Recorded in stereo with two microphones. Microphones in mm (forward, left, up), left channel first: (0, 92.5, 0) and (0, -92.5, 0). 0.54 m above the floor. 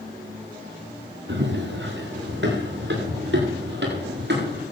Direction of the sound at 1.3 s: 75° right (ahead or behind).